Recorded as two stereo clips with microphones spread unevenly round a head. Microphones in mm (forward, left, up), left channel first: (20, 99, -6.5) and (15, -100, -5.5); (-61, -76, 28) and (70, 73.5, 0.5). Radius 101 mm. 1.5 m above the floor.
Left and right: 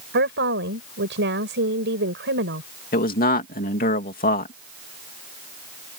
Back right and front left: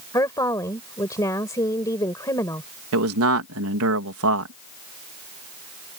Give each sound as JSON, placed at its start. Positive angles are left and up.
{"t": 0.1, "sound": "a woman speaking", "azimuth_deg": -60}
{"t": 2.9, "sound": "a man speaking", "azimuth_deg": 40}